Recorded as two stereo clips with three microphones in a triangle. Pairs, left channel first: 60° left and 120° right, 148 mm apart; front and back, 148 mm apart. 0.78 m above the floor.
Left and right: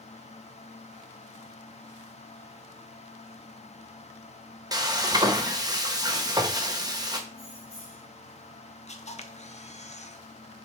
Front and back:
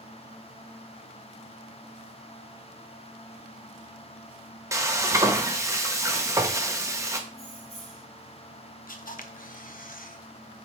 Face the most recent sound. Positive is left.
turn(degrees=20)